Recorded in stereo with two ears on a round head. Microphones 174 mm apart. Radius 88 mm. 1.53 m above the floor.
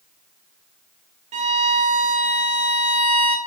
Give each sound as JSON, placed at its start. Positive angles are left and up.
{"t": 1.3, "sound": "a violin", "side_deg": -35, "distance_m": 1.0}